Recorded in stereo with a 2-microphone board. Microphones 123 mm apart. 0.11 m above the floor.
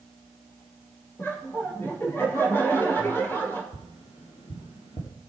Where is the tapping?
55° left (ahead or behind), 2.5 m.